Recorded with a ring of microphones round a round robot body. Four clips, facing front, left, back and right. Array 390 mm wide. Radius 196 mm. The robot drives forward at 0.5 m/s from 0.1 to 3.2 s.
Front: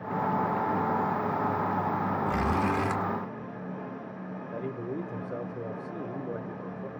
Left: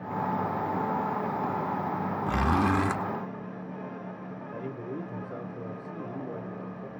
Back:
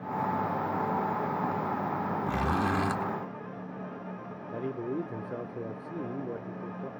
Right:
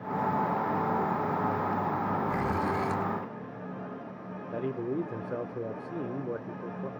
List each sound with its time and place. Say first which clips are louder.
2.3 s a zipper: left 4 dB, even; 95° left, 1.5 m; by 3.0 s 105° left, 1.5 m
4.5 s a man speaking: right 6 dB, back 2 dB; 105° right, 0.8 m